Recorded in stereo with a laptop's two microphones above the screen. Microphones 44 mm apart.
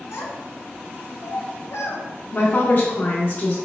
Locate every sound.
0.1 s a child speaking: 75° left (ahead or behind), 0.9 m
2.3 s a woman speaking: 45° left (ahead or behind), 0.6 m